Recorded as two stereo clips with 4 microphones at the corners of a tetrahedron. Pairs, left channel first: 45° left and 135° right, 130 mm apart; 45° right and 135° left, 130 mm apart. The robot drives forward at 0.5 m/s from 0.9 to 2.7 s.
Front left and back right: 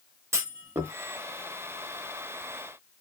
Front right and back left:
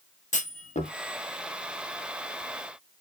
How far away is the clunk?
About 0.8 m.